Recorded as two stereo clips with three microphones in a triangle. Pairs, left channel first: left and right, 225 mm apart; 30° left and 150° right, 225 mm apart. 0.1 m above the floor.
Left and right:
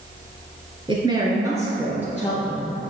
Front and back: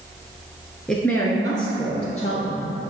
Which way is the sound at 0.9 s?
55° right.